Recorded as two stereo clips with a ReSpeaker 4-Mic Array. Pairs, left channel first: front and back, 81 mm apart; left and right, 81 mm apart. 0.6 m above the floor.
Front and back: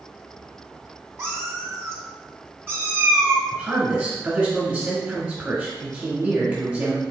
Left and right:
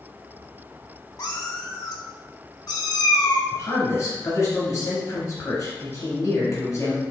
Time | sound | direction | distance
1.2 | a cat meowing | 125° left | 0.9 m
3.5 | a man speaking | 115° left | 1.4 m